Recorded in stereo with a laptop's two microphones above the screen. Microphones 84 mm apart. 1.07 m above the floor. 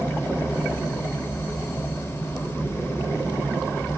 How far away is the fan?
About 1.5 m.